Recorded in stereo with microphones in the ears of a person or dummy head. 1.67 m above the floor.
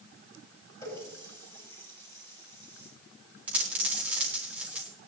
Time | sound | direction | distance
0.8 | a running tap | 15° left (ahead or behind) | 9 m
3.5 | a dropped coin | 5° right (ahead or behind) | 4 m